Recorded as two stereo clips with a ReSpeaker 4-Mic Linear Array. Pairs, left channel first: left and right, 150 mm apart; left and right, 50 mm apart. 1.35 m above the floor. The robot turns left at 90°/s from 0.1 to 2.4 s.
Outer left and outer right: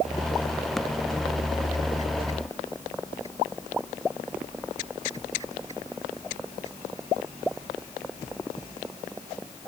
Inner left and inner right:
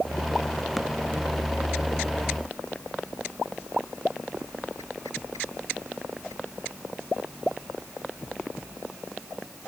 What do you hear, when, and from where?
Only background noise.